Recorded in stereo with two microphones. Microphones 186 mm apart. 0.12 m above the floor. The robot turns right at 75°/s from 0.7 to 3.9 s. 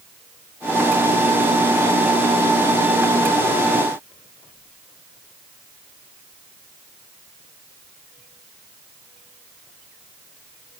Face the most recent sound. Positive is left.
No sound to turn to.